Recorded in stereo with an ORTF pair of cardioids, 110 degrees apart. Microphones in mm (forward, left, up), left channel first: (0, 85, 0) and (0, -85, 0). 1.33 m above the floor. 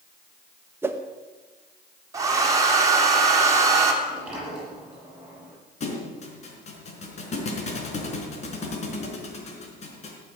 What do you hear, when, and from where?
0.8 s a whoosh: 15° right, 1.5 m
2.1 s a hair dryer: 20° right, 3 m
4.0 s a sliding door: 5° right, 9.5 m
5.8 s a thud: 40° left, 4 m